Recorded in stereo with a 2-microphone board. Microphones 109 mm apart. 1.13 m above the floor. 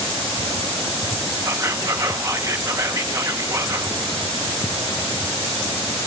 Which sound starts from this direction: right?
Whispering, at 1.4 s.